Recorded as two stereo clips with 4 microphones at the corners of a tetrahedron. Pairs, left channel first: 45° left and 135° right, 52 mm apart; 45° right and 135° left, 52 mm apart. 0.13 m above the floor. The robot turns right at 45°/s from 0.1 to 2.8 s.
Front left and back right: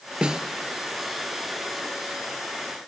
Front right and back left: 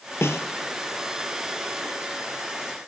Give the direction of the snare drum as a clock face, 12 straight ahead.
2 o'clock.